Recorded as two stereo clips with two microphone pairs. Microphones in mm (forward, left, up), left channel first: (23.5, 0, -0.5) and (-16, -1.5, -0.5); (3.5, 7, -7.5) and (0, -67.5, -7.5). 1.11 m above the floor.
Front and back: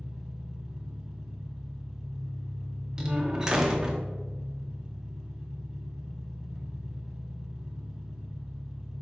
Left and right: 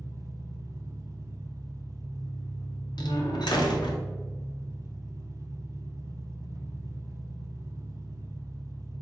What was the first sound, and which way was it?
An engine running, 110° right.